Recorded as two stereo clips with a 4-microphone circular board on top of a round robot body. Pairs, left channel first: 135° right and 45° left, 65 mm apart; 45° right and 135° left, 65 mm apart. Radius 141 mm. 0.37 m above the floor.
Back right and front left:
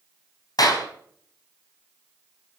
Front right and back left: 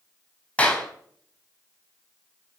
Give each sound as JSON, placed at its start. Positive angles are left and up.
{"t": 0.6, "sound": "a clap", "azimuth_deg": -115, "distance_m": 3.5}